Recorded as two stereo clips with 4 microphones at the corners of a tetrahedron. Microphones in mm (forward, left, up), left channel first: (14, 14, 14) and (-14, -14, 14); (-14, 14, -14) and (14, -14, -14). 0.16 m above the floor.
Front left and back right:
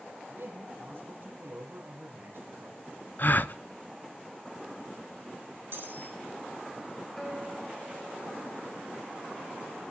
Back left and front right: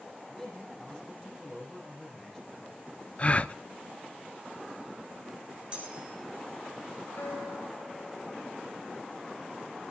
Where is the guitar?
130° left, 4 m.